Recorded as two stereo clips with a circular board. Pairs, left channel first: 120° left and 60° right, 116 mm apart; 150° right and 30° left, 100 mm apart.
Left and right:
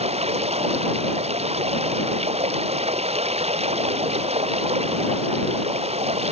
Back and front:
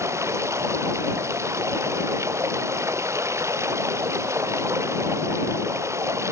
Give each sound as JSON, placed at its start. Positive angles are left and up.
{"t": 0.0, "sound": "running water", "azimuth_deg": -35}